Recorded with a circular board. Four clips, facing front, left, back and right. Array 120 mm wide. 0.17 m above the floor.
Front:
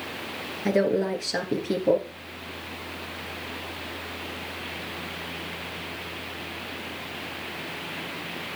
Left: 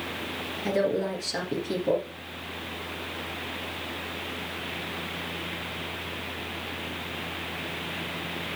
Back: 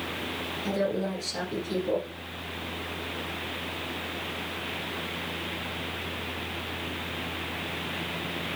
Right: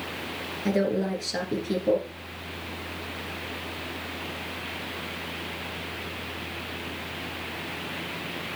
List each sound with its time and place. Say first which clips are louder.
0.7 s a woman speaking: right 1 dB, front 6 dB; 5° right, 2.5 m